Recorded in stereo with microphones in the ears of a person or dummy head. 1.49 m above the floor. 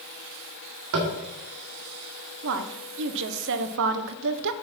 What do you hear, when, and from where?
0.9 s tapping: 65° right (ahead or behind), 1.9 m
2.4 s a woman speaking: 70° right (ahead or behind), 0.8 m